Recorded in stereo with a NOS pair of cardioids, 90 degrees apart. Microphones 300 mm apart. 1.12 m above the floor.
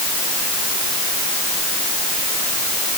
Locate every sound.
Only background noise.